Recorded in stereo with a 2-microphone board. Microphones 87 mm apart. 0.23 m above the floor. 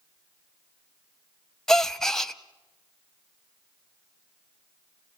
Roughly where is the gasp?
Centre.